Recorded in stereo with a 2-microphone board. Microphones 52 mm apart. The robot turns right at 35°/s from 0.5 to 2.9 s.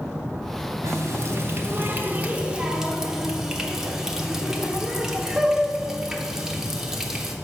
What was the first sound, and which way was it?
A running tap, 80° right.